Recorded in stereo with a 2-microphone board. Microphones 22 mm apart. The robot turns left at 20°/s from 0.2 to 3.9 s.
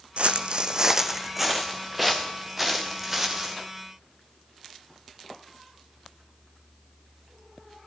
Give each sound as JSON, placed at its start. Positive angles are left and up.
{"t": 0.2, "sound": "footsteps", "side_deg": -60, "distance_m": 0.6}